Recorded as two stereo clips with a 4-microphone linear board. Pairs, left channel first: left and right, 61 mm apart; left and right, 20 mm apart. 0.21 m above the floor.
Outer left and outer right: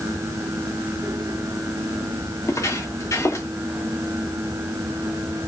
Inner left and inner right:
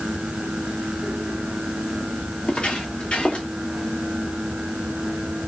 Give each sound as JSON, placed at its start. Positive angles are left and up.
{"t": 2.4, "sound": "footsteps", "side_deg": 60, "distance_m": 2.0}